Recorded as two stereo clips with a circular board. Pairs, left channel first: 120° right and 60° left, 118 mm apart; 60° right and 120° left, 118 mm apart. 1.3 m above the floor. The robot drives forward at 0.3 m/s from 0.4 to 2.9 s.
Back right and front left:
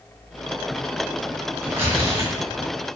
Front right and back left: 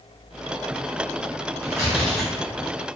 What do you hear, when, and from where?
1.6 s tearing paper: 20° left, 1.3 m; by 3.0 s 40° left, 1.1 m